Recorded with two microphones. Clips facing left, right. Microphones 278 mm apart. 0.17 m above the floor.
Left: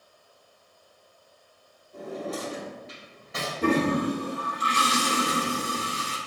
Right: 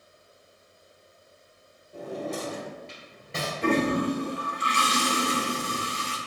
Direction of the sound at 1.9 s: 30° right (ahead or behind).